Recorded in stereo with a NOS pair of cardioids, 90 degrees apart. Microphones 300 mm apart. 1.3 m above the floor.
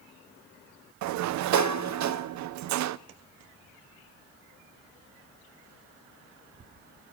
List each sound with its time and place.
1.0 s a sliding door: 70° right, 0.6 m